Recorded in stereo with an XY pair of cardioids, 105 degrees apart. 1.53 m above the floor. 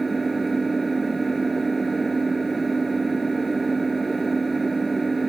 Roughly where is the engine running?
Ahead.